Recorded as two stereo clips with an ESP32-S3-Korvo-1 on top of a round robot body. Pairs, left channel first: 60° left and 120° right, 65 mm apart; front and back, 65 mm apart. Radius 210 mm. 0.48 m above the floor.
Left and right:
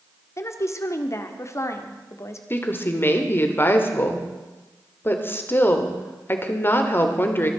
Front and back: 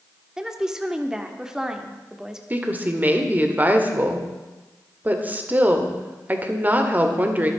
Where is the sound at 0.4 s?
100° left, 1.6 m.